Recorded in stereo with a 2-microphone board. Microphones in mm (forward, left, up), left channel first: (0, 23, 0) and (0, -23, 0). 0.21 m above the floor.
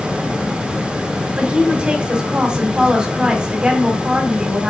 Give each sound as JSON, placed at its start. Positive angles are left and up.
{"t": 1.4, "sound": "a woman speaking", "side_deg": -20, "distance_m": 1.3}